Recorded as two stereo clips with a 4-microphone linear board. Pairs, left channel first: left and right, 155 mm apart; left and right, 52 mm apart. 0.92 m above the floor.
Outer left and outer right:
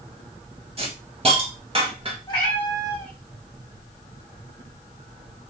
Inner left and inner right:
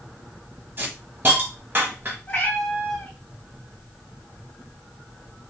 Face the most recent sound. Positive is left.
turn(degrees=30)  # may be behind; listen again after turning